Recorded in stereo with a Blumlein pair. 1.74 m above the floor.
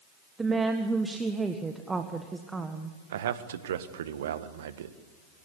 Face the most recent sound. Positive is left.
turn(degrees=-60)